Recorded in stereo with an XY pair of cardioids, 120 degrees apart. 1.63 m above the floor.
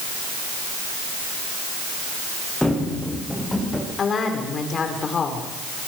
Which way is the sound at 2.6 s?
5° left.